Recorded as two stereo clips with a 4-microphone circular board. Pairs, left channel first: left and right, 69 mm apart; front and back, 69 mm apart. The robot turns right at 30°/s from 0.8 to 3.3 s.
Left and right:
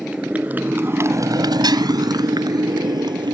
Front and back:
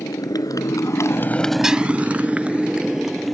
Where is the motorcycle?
15° right; by 3.3 s 90° right.